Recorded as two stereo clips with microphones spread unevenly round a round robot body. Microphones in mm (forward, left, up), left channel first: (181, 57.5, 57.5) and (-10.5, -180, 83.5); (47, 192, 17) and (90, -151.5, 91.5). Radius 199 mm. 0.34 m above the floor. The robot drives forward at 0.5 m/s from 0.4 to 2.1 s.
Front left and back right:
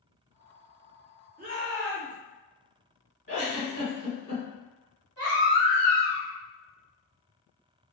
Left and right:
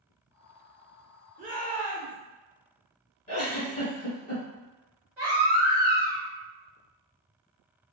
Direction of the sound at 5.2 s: 170° right.